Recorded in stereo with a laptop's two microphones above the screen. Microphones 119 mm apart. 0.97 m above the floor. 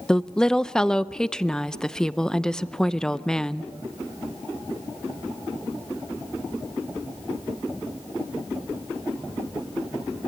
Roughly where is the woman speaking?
Centre.